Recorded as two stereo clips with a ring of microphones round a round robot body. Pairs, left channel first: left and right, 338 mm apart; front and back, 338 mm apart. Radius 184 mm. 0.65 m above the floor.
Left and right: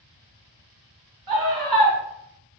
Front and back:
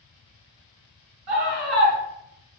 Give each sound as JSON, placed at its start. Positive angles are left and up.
{"t": 1.3, "sound": "a scream", "azimuth_deg": -130, "distance_m": 6.0}